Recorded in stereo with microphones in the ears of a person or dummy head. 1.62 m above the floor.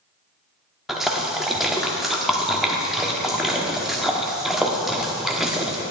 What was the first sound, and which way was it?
A splash, centre (ahead or behind).